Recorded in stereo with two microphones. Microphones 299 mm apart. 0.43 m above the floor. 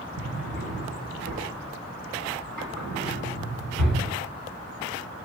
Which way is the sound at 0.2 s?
75° right (ahead or behind).